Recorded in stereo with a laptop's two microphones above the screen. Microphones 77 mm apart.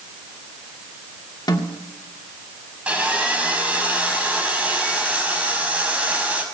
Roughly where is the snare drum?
Left.